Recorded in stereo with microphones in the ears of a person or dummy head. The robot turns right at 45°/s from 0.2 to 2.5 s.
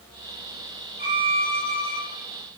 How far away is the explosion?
I don't hear an explosion.